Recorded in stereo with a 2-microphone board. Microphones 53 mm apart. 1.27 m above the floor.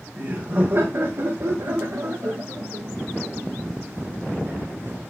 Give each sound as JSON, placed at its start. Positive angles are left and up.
{"t": 0.2, "sound": "laughter", "side_deg": -35, "distance_m": 1.8}